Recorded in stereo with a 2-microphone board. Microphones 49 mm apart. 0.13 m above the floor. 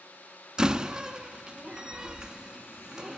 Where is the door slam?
15° right (ahead or behind), 0.7 m.